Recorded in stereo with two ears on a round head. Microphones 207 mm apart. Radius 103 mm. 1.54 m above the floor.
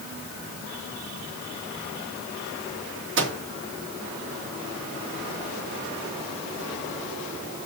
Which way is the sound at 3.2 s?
55° right (ahead or behind).